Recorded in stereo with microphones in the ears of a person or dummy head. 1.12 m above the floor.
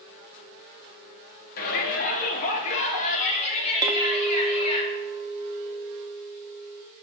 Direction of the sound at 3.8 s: 20° right (ahead or behind).